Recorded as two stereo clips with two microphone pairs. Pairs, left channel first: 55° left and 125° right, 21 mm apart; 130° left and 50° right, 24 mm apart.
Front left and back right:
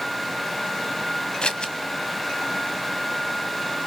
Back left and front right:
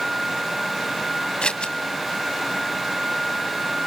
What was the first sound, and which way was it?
Scissors, 90° left.